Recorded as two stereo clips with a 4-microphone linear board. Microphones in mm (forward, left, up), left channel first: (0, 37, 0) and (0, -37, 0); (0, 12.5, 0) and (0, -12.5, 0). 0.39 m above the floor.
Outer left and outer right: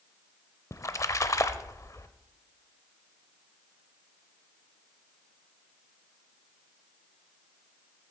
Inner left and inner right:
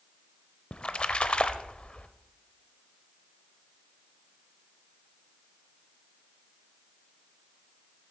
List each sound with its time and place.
0.7 s a splash: 45° left (ahead or behind), 0.6 m